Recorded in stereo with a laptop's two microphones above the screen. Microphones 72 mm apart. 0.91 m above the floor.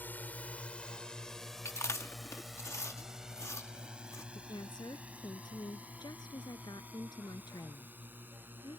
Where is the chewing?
40° left (ahead or behind).